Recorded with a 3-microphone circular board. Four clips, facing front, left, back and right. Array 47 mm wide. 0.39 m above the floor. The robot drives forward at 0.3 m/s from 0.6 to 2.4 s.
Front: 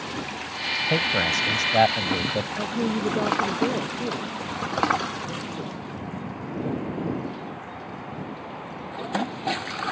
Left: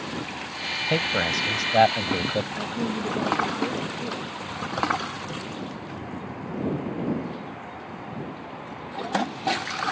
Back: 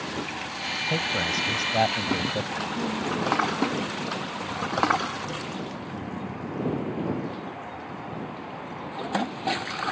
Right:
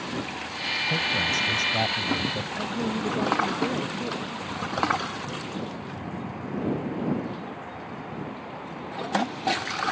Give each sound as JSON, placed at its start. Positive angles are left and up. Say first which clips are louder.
{"t": 0.9, "sound": "a man speaking", "louder": "left 3 dB, front 4 dB", "azimuth_deg": 55}
{"t": 2.6, "sound": "a woman speaking", "louder": "even, front 3 dB", "azimuth_deg": 5}